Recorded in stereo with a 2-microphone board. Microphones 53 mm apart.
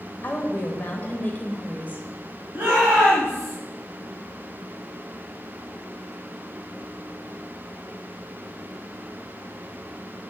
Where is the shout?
40° right (ahead or behind), 2.0 m.